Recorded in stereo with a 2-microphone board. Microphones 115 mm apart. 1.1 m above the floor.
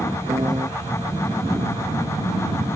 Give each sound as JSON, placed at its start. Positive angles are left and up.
{"t": 0.3, "sound": "a piano", "side_deg": -35}